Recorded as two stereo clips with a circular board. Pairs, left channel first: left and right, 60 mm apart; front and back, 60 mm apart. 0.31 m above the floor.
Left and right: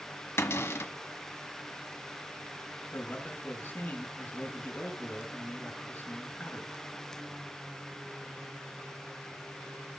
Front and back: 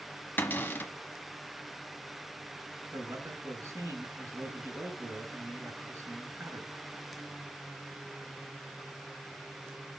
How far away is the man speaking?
About 4 m.